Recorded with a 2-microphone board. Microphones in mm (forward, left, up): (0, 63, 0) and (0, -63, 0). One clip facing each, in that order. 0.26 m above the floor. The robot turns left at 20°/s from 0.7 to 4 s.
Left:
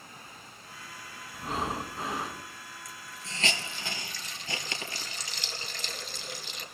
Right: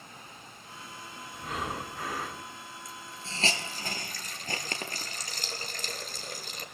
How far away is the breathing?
About 1.9 m.